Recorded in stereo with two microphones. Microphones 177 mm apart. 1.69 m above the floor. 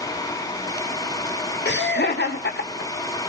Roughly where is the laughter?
Left.